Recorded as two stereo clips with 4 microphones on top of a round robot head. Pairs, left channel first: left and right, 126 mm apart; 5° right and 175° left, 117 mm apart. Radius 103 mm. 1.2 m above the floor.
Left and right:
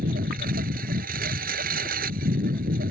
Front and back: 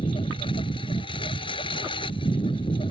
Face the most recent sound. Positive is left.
turn(degrees=-65)